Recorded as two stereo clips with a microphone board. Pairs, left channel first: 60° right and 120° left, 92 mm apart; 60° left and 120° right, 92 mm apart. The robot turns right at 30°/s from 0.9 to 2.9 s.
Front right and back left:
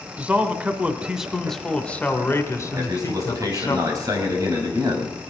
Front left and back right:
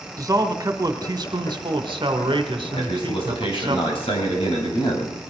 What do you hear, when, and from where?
0.2 s a man speaking: 165° right, 1.6 m; by 3.8 s 105° right, 1.6 m
2.8 s a man speaking: 65° left, 4.5 m; by 5.3 s 70° left, 4.5 m